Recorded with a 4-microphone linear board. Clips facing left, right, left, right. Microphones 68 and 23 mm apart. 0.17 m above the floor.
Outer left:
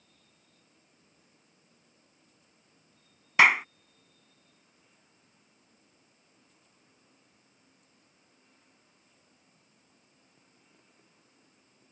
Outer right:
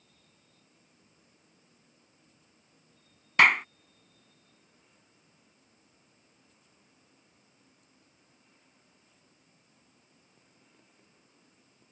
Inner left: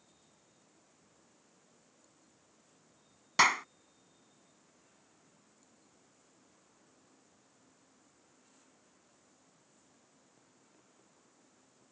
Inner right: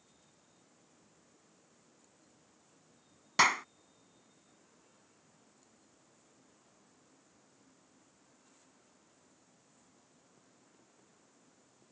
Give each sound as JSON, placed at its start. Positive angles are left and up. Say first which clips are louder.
{"t": 3.4, "sound": "a clap", "louder": "even, inner left 1 dB", "side_deg": 5}